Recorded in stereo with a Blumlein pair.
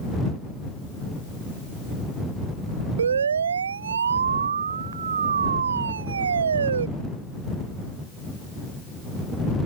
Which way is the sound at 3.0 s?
70° right.